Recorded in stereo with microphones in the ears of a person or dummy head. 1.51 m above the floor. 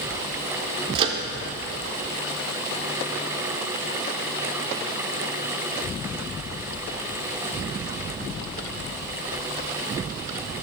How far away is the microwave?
About 0.8 m.